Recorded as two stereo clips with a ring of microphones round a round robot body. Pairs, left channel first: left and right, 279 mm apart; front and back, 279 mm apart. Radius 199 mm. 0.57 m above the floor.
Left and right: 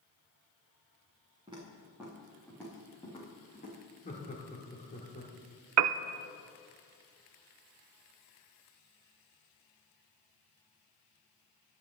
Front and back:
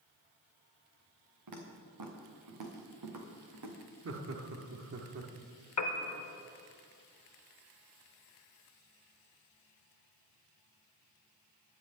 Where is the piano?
50° right, 0.5 m.